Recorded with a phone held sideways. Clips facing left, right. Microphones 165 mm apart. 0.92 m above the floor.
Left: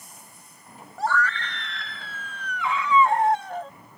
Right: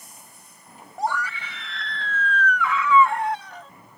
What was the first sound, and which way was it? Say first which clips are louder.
A scream: left 1 dB; 20° right (ahead or behind).